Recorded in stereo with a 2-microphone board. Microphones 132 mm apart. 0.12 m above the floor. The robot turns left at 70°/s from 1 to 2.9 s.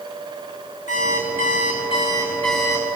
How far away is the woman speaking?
No woman speaking in this recording.